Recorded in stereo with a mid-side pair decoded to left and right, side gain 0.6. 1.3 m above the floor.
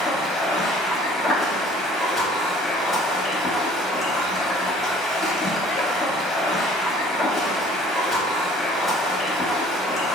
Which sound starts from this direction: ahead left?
Running water, at 0.0 s.